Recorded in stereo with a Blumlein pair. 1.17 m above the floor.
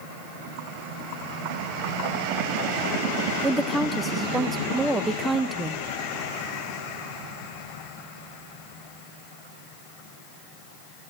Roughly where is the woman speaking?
Ahead.